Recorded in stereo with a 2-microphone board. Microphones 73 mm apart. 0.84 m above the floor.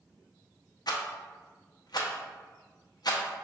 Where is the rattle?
65° left (ahead or behind), 0.7 m.